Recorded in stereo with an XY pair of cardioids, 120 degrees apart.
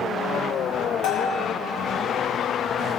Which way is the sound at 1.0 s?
70° left.